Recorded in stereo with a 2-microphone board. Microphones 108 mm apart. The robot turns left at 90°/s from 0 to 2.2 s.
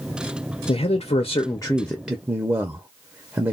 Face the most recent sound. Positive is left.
turn(degrees=-20)